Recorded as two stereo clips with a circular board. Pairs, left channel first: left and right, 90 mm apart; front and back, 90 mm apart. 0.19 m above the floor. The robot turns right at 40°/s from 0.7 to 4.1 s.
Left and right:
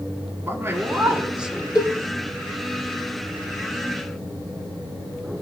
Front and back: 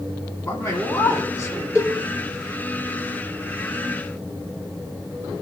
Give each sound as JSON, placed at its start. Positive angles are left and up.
{"t": 0.4, "sound": "a man speaking", "azimuth_deg": -45, "distance_m": 1.9}
{"t": 1.8, "sound": "a cowbell", "azimuth_deg": 55, "distance_m": 4.0}